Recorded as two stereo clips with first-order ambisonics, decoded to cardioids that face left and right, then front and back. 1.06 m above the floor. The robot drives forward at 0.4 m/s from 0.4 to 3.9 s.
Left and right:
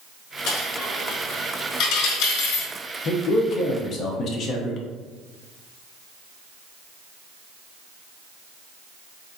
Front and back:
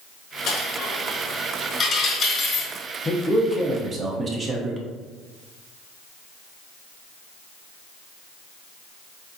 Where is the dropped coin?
45° left, 1.6 m; by 2.7 s 80° left, 1.2 m.